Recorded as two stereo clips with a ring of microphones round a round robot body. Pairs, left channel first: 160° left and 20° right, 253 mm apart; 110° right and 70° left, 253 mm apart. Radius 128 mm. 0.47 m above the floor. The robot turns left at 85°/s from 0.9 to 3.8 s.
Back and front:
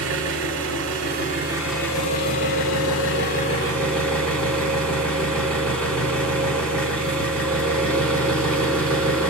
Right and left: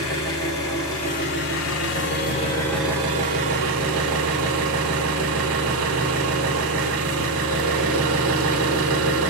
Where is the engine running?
45° right, 1.5 m; by 9.3 s 70° left, 1.5 m.